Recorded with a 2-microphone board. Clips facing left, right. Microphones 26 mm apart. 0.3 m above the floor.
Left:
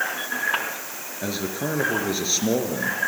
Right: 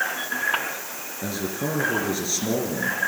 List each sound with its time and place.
1.2 s a man speaking: 50° left (ahead or behind), 4 m